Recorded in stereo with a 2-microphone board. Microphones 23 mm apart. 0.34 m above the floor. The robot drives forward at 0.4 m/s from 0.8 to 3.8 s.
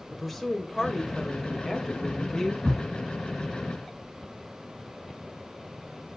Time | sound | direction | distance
0.1 | a woman speaking | centre (ahead or behind) | 1.4 m
2.6 | a thud | 70° right (ahead or behind) | 1.3 m